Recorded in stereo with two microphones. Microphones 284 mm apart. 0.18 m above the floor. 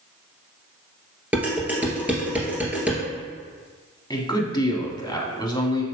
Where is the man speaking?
15° left (ahead or behind), 1.1 m.